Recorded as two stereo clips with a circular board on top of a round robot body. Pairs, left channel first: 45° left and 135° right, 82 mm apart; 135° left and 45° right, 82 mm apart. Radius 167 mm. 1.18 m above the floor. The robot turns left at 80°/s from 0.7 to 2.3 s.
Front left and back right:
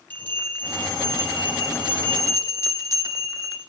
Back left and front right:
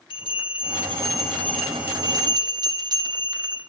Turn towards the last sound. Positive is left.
turn(degrees=-10)